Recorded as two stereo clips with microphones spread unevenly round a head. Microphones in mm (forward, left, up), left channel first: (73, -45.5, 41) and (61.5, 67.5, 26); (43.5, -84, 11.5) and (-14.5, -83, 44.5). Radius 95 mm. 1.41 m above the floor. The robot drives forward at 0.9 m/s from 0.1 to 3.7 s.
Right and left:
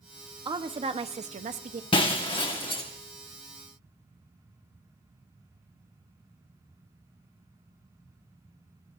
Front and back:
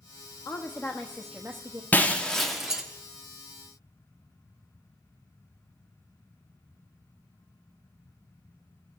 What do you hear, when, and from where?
0.5 s a woman speaking: 45° left, 1.2 m; by 1.8 s 115° left, 1.0 m
1.9 s breaking glass: 85° right, 1.1 m; by 2.8 s 135° right, 1.3 m